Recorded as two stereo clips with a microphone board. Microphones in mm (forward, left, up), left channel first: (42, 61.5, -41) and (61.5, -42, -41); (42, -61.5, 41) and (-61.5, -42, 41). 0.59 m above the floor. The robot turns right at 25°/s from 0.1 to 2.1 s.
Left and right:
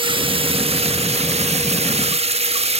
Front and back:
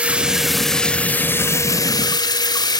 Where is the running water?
110° right, 0.7 m; by 2.8 s 60° right, 0.7 m.